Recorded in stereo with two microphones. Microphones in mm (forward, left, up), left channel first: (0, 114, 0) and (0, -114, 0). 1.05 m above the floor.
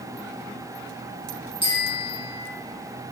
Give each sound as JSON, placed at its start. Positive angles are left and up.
{"t": 1.6, "sound": "a bicycle bell", "side_deg": 25, "distance_m": 7.0}